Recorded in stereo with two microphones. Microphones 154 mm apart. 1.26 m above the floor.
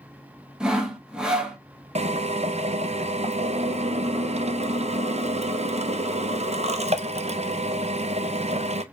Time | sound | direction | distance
0.6 | sawing | 5° right (ahead or behind) | 0.7 m
1.9 | a drill | 45° right (ahead or behind) | 0.5 m